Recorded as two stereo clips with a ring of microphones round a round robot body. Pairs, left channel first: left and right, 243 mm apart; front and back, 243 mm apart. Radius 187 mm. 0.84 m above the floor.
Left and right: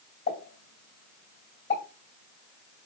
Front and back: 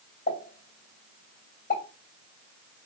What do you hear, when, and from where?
0.3 s a pop: 50° left, 2.5 m